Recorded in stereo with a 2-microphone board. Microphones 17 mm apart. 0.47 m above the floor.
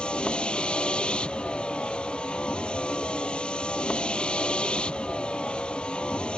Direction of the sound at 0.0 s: 85° left.